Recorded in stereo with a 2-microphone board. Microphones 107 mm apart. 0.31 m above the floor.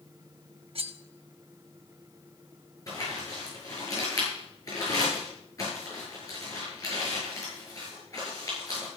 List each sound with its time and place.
0.8 s cutlery clinking: 55° right (ahead or behind), 0.8 m
2.9 s crumpling: 30° left (ahead or behind), 7 m